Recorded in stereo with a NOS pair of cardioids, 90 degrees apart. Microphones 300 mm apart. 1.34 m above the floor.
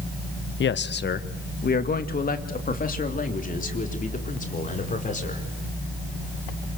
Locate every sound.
0.6 s a man speaking: 45° left, 1.1 m; by 5.4 s 25° left, 5.5 m